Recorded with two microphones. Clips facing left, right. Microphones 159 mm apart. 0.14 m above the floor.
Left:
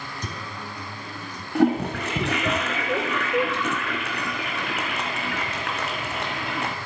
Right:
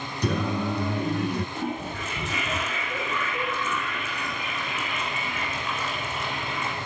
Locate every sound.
0.2 s singing: 60° right (ahead or behind), 0.7 m
1.6 s a toilet flushing: 60° left (ahead or behind), 2 m